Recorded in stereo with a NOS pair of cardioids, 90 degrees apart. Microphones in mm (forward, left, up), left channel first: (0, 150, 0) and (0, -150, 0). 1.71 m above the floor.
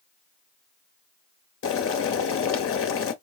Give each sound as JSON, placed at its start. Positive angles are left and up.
{"t": 1.6, "sound": "boiling", "azimuth_deg": 45, "distance_m": 0.9}